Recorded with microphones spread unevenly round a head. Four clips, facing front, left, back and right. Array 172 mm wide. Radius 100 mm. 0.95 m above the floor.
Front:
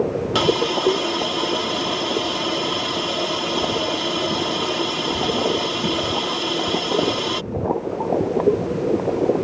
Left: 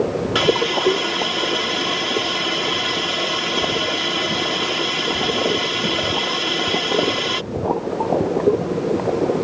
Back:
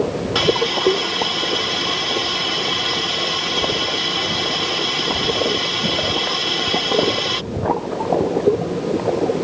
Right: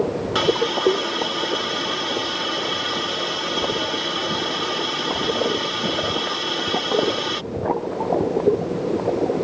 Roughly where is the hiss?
Ahead.